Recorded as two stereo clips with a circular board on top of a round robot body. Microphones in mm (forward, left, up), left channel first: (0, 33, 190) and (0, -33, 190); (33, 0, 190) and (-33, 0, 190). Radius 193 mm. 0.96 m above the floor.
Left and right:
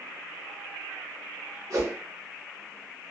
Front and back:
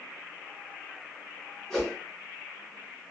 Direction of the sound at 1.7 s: 85° right.